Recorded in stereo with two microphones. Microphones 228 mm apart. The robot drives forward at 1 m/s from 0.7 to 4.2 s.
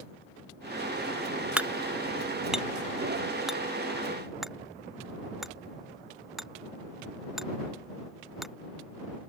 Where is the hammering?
5° right (ahead or behind); by 8.5 s centre (ahead or behind).